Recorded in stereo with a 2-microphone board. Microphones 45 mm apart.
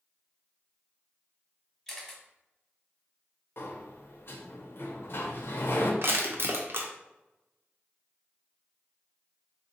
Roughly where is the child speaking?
I don't hear a child speaking.